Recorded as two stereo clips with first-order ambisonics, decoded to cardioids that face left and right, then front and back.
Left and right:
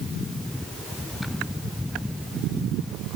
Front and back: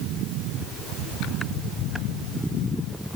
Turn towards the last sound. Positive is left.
No sound to turn to.